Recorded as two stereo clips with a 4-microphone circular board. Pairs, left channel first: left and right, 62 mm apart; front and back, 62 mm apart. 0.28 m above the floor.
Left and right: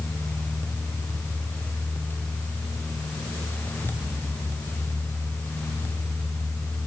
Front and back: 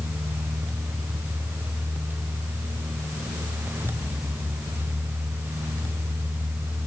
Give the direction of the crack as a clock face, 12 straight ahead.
No crack in this recording.